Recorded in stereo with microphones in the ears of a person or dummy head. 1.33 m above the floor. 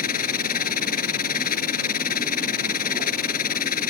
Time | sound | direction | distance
0.0 | a machine running | 50° left (ahead or behind) | ?